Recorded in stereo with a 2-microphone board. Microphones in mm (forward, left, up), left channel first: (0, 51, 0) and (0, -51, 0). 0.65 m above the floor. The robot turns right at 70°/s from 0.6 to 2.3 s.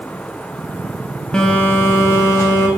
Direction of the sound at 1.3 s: 15° left.